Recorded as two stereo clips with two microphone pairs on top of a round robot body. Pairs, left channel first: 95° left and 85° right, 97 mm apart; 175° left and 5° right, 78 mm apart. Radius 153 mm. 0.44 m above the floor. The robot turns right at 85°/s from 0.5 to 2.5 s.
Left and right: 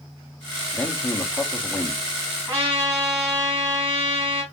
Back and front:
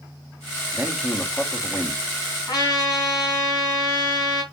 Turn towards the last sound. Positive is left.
turn(degrees=-145)